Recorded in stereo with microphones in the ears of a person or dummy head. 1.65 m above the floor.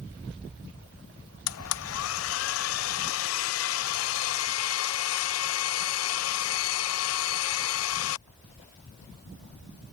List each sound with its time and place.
1.5 s a blender: 75° left (ahead or behind)